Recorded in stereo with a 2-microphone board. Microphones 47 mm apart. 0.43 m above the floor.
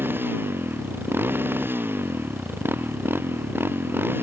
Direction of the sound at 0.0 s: 50° right (ahead or behind).